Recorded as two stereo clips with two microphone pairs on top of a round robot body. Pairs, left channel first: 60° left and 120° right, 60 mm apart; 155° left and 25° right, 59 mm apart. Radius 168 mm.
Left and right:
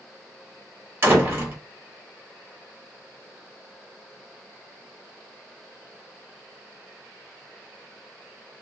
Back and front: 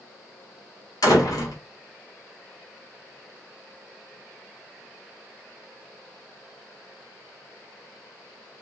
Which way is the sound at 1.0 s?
Straight behind.